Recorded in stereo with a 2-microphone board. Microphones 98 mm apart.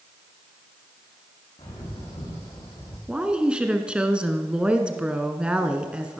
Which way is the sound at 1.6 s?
80° left.